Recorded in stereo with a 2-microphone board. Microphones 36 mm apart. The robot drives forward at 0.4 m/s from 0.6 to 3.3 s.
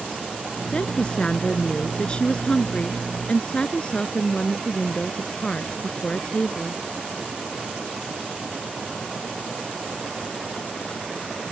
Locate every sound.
0.7 s a woman speaking: 30° left (ahead or behind)